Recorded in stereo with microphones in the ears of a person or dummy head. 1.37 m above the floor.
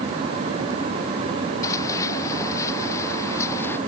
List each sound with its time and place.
1.6 s running footsteps: 20° left (ahead or behind); by 3.8 s 15° left (ahead or behind)